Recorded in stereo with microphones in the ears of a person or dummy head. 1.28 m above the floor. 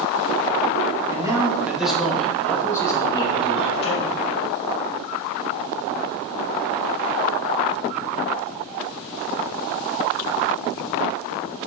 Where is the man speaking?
20° right (ahead or behind), 1.7 m; by 4.2 s 35° left (ahead or behind), 2 m.